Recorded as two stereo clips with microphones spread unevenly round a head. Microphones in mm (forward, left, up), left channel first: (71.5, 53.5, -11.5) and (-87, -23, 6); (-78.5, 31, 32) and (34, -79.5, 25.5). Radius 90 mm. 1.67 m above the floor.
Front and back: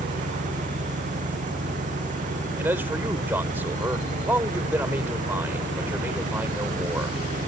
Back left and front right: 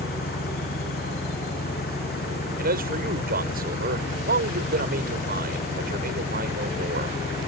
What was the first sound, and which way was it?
An engine running, 160° left.